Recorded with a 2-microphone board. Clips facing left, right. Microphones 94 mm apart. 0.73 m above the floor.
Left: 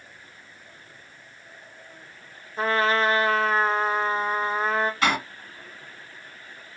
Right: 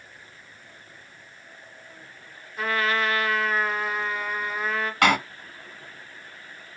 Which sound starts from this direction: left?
A trumpet, at 2.6 s.